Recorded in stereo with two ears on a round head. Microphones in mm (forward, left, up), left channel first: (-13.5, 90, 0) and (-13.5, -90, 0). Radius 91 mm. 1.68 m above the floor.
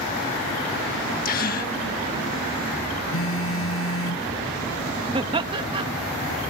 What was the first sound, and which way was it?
A gasp, 45° left (ahead or behind).